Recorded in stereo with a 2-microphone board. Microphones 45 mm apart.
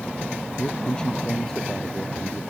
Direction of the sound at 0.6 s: 20° left (ahead or behind).